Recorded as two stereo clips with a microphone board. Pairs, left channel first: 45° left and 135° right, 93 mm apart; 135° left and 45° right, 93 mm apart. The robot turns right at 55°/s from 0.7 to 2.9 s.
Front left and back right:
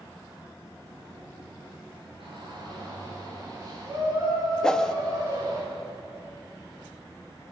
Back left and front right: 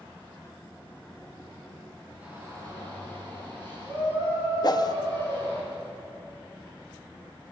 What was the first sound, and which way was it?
A shout, 120° right.